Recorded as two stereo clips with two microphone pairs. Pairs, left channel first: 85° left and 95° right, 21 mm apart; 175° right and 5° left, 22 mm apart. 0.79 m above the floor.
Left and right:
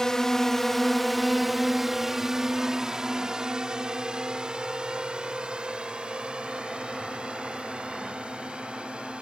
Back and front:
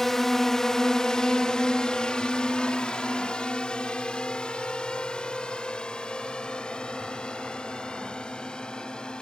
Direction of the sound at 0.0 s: 125° left.